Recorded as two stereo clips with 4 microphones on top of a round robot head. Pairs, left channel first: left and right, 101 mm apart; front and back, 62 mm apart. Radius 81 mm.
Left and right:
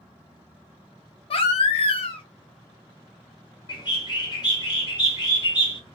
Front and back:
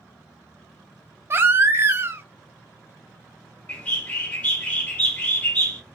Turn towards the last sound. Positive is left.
turn(degrees=60)